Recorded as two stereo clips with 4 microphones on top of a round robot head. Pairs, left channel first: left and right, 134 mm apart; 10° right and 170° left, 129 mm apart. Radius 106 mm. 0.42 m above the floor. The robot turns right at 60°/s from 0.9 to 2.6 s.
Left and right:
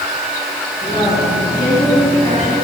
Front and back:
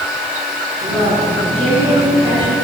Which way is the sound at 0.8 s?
30° left.